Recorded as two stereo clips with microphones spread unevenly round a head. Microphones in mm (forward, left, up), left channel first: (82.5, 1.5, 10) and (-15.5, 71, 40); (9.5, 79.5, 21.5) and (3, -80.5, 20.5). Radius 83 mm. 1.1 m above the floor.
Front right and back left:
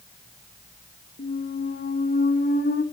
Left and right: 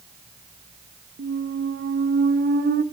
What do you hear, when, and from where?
1.2 s a squeak: 60° right, 0.8 m